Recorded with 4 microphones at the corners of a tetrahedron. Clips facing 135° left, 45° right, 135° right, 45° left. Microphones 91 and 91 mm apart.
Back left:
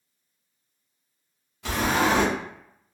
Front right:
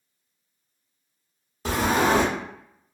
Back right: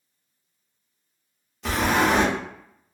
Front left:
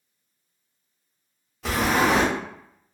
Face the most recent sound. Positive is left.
turn(degrees=-45)